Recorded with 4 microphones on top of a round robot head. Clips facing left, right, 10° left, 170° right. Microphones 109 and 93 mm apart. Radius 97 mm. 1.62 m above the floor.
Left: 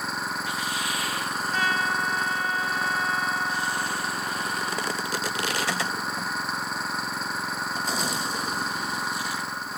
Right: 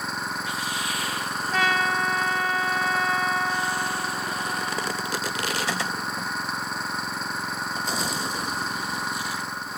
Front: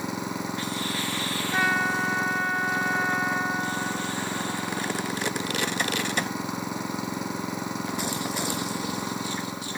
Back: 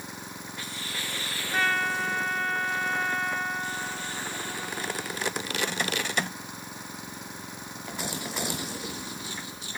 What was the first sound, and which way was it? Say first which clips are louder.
An engine running: even, front 10 dB; straight ahead.